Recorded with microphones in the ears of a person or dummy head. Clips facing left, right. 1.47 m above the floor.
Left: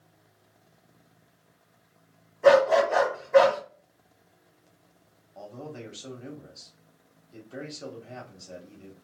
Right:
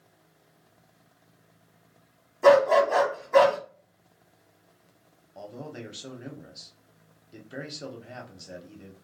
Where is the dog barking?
60° right (ahead or behind), 1.6 m.